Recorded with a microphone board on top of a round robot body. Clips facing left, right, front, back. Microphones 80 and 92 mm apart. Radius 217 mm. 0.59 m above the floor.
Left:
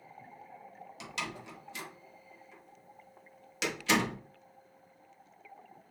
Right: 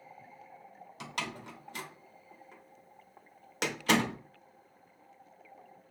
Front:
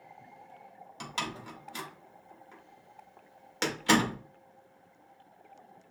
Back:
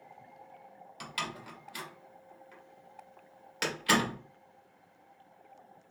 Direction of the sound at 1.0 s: 55° right.